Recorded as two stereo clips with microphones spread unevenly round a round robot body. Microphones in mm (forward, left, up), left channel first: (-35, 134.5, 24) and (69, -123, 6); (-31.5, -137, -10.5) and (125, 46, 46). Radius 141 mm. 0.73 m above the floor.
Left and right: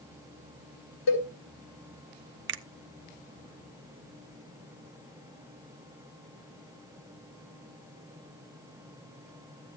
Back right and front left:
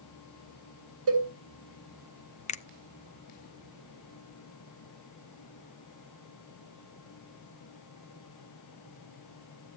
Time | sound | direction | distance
1.1 | a cowbell | 95° left | 4 m
2.5 | a finger snap | 95° right | 0.6 m